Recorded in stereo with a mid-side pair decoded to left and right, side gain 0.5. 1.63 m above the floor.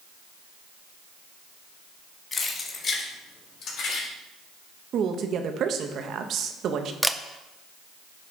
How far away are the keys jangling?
About 2.5 m.